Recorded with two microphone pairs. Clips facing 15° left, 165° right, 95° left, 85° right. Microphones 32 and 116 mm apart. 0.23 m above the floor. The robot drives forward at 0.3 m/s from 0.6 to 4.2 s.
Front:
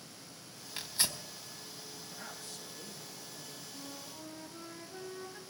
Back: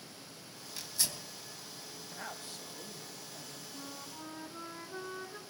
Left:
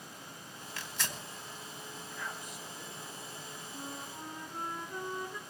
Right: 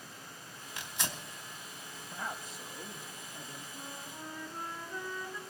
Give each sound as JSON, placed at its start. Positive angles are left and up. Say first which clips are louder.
{"t": 0.8, "sound": "tearing paper", "louder": "front 2 dB, right 1 dB", "azimuth_deg": -15, "distance_m": 1.6}
{"t": 2.1, "sound": "a man speaking", "louder": "back 4 dB, right 4 dB", "azimuth_deg": -125, "distance_m": 1.1}
{"t": 3.7, "sound": "a flute", "louder": "back 2 dB, left 4 dB", "azimuth_deg": 150, "distance_m": 1.2}